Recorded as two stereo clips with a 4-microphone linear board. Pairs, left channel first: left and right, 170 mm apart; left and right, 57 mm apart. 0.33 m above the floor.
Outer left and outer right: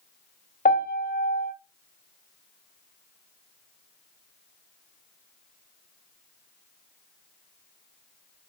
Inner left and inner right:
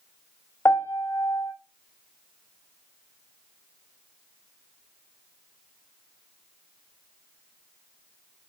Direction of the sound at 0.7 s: 55° left (ahead or behind).